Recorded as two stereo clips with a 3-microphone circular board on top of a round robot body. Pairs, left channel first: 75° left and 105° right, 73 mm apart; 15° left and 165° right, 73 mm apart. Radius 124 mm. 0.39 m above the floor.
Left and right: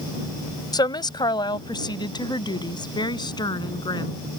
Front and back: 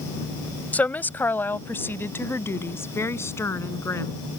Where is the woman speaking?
80° left; by 4.2 s 65° left.